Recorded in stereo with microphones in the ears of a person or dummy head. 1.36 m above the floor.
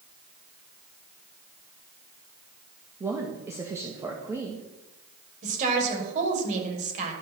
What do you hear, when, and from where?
3.0 s a woman speaking: 10° right (ahead or behind), 2 m
5.4 s a woman speaking: 50° right (ahead or behind), 5 m